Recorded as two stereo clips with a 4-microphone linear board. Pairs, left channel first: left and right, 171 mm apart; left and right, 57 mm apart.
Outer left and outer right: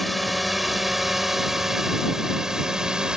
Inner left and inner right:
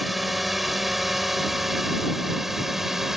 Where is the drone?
Centre (ahead or behind); by 3.2 s 5° right (ahead or behind).